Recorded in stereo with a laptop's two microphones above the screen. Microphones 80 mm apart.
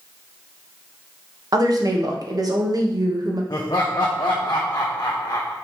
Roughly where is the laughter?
Left.